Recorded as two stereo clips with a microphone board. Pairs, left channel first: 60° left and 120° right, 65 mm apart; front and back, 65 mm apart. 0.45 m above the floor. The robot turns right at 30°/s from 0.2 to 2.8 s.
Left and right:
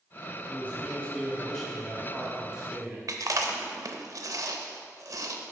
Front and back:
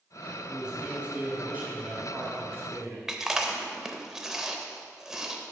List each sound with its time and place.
0.5 s a man speaking: 105° left, 1.7 m; by 3.0 s 175° left, 1.7 m
3.1 s chewing: 95° right, 0.5 m